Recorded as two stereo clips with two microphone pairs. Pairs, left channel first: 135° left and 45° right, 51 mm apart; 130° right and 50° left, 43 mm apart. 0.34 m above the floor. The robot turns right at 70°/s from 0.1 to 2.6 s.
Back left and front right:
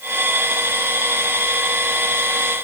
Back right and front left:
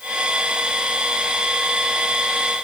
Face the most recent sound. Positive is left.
No sound to turn to.